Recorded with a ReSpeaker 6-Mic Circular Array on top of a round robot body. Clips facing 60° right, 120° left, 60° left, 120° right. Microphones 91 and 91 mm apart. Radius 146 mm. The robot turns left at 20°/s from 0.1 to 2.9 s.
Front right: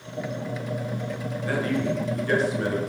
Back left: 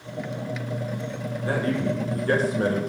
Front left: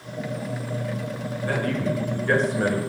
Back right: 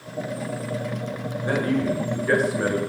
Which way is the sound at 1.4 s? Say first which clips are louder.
Back left 1 dB, back right 3 dB; straight behind.